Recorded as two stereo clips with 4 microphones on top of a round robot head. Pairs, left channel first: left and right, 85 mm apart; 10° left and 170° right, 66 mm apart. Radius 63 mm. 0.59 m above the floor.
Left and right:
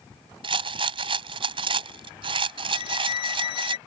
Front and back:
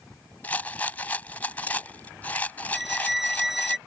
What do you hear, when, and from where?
0.4 s a rattle: 65° right
2.7 s a violin: 105° left